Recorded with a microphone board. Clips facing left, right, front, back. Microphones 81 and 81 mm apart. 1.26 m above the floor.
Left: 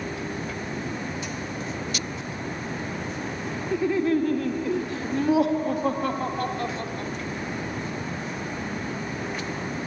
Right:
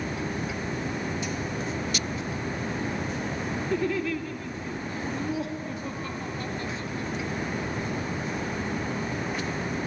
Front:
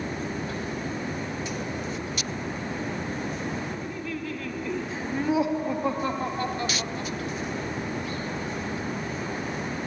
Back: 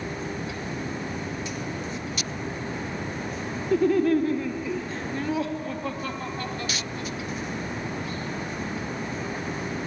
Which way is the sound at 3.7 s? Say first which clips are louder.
Left 6 dB, back 13 dB; 175° left.